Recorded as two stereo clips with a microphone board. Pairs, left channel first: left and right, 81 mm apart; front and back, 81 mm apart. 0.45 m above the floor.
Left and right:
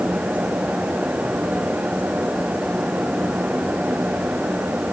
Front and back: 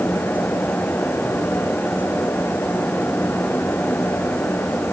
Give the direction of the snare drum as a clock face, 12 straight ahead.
I don't hear a snare drum.